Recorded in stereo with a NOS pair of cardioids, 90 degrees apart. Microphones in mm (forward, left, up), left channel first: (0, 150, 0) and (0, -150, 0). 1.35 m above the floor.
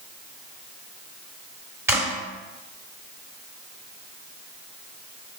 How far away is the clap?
About 3.5 m.